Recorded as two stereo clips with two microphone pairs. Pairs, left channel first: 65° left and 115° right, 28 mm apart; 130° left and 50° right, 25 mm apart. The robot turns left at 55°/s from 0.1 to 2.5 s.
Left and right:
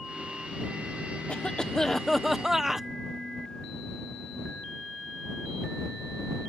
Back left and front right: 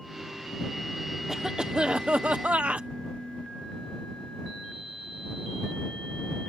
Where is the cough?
25° left; by 2.9 s 40° right.